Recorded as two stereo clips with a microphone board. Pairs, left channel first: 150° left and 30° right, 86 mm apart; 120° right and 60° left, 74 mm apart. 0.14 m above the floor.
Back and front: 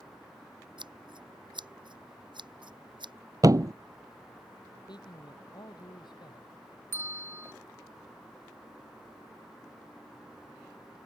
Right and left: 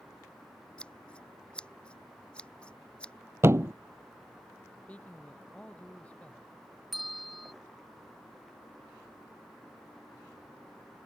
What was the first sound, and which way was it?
Scissors, 45° right.